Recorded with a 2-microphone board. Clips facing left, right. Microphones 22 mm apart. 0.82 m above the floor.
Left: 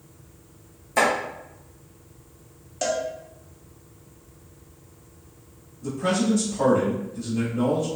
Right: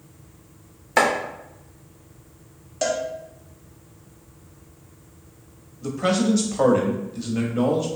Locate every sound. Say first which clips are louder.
1.0 s chopping: right 2 dB; 30° right (ahead or behind), 0.7 m
2.8 s a cowbell: right 2 dB; 5° right (ahead or behind), 0.5 m
5.8 s a man speaking: right 2 dB; 45° right (ahead or behind), 0.7 m